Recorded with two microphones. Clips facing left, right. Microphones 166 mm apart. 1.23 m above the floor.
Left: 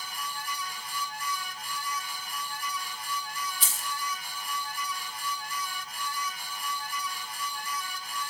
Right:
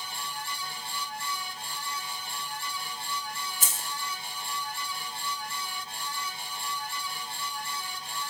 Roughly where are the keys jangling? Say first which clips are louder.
Even; right.